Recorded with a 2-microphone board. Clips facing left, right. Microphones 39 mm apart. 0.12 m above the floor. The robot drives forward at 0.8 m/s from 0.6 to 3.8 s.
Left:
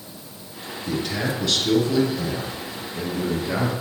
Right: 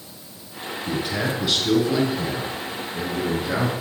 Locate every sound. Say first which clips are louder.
0.9 s a man speaking: even; 15° right (ahead or behind), 2 m